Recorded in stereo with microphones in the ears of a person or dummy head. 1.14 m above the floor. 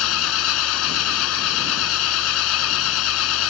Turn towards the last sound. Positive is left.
turn(degrees=75)  # may be behind; listen again after turning